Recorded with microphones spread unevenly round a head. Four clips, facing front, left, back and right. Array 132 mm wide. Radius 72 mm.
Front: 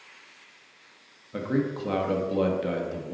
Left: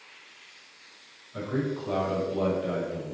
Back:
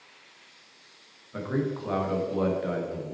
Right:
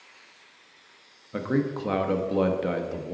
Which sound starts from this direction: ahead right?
A man speaking, at 1.3 s.